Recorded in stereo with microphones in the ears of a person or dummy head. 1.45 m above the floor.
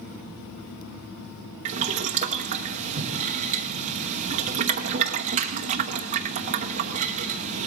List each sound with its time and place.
1.6 s boiling: 40° right (ahead or behind), 0.9 m